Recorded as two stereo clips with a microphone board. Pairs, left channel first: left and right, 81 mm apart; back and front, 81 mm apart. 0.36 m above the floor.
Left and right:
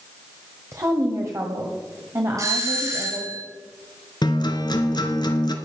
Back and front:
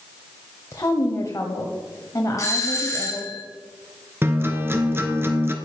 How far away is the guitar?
About 1.5 m.